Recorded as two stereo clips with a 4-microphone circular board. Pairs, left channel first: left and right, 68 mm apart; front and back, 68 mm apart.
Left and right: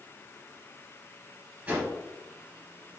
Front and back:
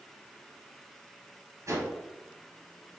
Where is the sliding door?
I don't hear a sliding door.